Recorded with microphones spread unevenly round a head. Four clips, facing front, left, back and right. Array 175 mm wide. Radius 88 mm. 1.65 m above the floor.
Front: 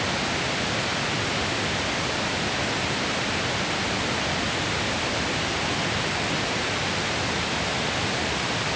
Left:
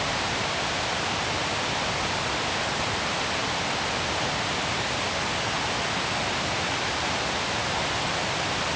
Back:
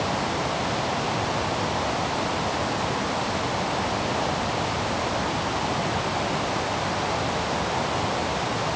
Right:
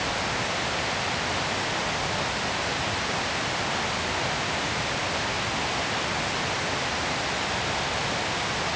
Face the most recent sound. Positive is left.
No sound to turn to.